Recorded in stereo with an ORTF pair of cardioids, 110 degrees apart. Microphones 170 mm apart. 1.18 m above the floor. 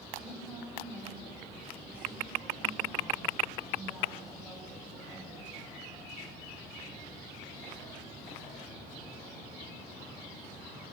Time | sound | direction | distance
0.2 | a woman speaking | 15° right | 3.5 m